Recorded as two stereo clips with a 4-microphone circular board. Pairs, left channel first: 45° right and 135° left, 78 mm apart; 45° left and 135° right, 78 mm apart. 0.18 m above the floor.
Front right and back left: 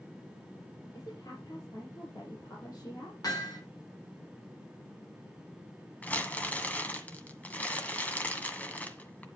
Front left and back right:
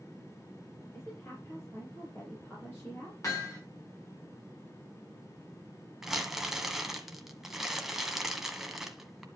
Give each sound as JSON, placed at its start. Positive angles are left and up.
{"t": 0.9, "sound": "a woman speaking", "azimuth_deg": -10, "distance_m": 4.5}
{"t": 3.2, "sound": "hammering", "azimuth_deg": 0, "distance_m": 7.0}
{"t": 6.0, "sound": "crumpling", "azimuth_deg": -60, "distance_m": 1.7}